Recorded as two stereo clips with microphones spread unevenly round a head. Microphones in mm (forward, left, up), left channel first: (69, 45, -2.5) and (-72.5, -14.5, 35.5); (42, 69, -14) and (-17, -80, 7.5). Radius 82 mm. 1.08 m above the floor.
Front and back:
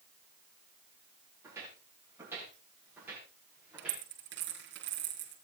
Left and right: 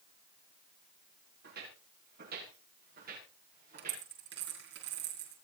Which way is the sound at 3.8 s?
135° right.